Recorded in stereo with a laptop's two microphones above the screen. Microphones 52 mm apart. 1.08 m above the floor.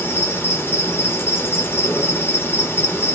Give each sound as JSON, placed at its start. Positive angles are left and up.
{"t": 0.0, "sound": "an insect", "side_deg": 45, "distance_m": 1.0}